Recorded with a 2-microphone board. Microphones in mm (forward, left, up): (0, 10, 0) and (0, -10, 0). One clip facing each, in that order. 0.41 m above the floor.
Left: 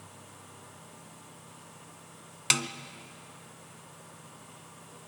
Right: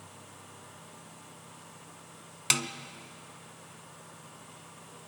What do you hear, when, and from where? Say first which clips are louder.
2.5 s a snare drum: left 1 dB; 10° left (ahead or behind), 0.7 m